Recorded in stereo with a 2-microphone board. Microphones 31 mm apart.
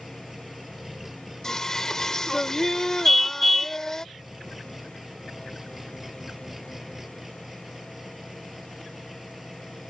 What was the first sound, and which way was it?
An engine running, 5° right (ahead or behind).